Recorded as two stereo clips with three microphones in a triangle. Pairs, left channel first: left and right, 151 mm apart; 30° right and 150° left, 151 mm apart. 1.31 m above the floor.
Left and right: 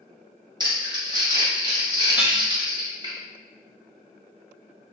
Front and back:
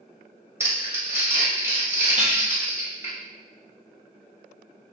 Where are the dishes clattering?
170° right, 1.0 m.